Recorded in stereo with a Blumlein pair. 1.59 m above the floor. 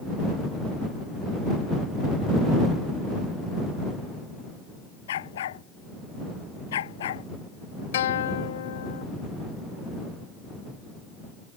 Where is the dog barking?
60° left.